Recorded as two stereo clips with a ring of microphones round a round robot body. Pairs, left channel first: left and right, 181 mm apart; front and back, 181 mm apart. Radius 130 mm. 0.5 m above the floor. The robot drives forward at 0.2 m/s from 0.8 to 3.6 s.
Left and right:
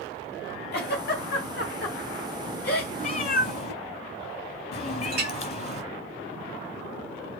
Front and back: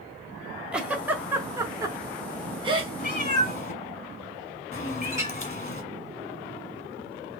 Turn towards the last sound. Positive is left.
turn(degrees=-105)